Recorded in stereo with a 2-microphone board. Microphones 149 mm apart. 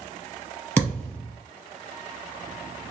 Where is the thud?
10° left (ahead or behind), 2 m.